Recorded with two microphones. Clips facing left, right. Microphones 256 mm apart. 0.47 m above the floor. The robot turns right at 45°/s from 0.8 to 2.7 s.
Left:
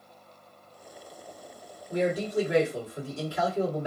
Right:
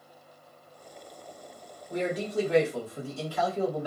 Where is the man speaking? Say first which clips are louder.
Left 3 dB; 5° left, 1.8 m; by 3.9 s 40° left, 1.8 m.